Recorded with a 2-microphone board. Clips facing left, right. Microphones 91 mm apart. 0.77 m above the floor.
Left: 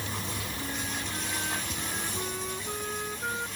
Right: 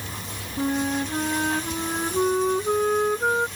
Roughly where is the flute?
Right.